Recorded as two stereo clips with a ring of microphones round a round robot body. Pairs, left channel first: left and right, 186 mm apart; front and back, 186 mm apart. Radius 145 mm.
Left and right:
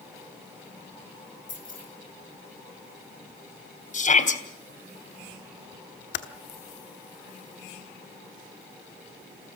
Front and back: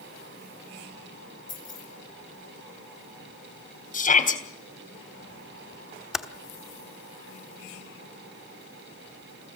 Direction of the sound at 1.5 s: 45° left.